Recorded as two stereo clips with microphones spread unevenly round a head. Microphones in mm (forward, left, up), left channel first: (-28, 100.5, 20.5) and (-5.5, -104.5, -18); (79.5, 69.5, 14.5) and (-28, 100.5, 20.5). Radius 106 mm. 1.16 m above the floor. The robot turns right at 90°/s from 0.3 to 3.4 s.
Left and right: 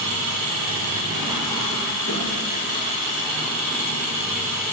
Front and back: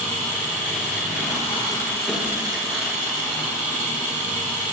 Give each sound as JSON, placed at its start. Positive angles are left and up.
{"t": 0.0, "sound": "an engine running", "azimuth_deg": -90, "distance_m": 5.5}